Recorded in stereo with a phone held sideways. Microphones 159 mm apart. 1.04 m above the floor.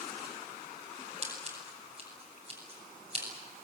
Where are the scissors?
40° right (ahead or behind), 7 m.